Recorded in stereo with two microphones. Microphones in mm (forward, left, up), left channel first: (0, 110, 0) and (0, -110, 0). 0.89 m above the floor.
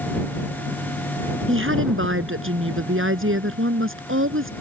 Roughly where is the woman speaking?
Right.